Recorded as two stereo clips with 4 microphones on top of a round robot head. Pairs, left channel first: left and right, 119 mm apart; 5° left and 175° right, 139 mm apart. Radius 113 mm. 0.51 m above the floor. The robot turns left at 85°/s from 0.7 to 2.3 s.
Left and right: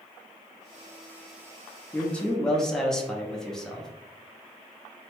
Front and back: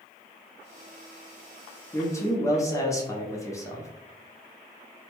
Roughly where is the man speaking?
Ahead left.